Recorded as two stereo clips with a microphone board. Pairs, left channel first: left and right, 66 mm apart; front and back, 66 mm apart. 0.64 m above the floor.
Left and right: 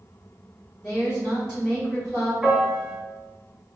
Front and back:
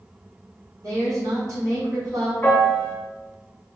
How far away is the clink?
I don't hear a clink.